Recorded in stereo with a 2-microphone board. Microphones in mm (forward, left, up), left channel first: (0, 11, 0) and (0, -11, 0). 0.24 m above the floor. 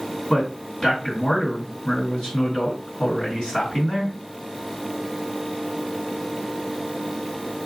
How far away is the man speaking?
About 2 m.